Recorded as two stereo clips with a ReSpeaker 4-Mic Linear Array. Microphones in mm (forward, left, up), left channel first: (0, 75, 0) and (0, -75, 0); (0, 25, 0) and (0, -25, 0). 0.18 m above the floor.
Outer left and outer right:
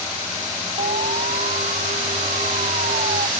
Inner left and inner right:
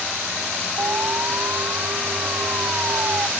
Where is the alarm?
55° right (ahead or behind).